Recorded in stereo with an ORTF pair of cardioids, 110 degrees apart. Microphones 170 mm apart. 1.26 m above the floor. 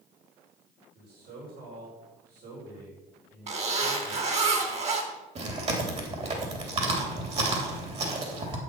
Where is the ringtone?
No ringtone in this recording.